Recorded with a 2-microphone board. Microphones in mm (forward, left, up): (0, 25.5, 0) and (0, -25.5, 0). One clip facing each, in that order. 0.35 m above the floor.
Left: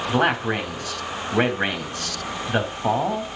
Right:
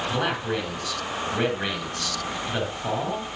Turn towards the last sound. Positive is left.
turn(degrees=40)  # may be behind; listen again after turning